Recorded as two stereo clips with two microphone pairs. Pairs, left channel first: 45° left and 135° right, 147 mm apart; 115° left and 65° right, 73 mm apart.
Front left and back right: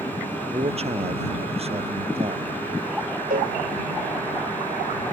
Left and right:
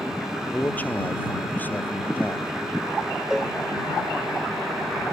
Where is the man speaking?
Straight behind.